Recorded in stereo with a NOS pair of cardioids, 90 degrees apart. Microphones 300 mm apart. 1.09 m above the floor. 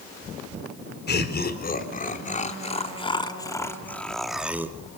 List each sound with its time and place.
1.1 s laughter: 35° left, 4 m; by 4.8 s 10° right, 2.5 m